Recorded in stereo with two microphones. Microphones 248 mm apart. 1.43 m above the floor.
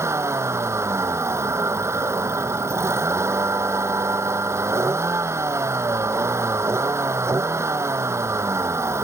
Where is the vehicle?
10° right (ahead or behind).